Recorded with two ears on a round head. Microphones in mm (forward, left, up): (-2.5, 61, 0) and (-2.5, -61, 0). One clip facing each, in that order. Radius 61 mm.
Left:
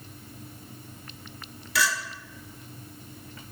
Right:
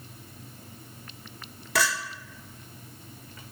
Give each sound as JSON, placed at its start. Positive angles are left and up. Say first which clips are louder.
{"t": 1.8, "sound": "a clink", "louder": "even", "side_deg": -40, "distance_m": 1.4}